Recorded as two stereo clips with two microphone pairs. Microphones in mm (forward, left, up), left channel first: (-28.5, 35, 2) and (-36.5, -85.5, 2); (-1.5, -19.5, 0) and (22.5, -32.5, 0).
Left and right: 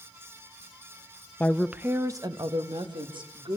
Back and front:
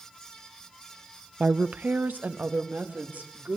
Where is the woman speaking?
10° left, 0.7 m; by 3.6 s 50° right, 3.5 m.